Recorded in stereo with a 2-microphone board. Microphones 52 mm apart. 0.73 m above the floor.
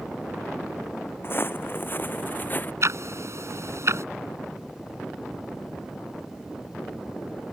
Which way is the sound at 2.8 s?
60° right (ahead or behind).